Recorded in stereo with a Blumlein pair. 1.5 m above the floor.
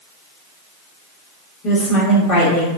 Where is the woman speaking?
30° left, 1.7 m.